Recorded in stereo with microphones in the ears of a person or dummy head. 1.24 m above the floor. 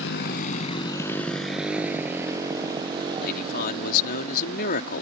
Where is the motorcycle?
70° left (ahead or behind); by 5.0 s 30° right (ahead or behind).